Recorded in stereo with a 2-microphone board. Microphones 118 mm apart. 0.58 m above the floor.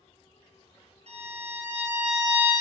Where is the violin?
70° right (ahead or behind), 2.5 m.